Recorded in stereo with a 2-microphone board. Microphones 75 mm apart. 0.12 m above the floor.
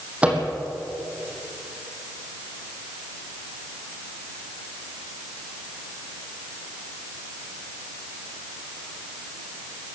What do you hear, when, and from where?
0.2 s a microwave: 20° right (ahead or behind), 3.5 m